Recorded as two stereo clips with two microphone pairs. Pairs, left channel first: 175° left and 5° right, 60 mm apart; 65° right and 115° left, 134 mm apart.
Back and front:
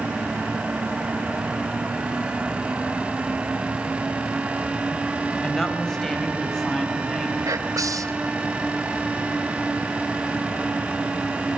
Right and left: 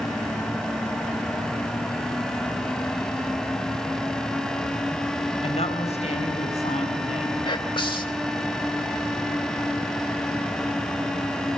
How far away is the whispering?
About 3.5 m.